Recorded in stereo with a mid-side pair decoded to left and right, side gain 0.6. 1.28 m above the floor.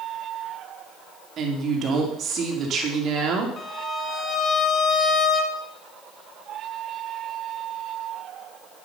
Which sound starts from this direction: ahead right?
A woman speaking, at 1.4 s.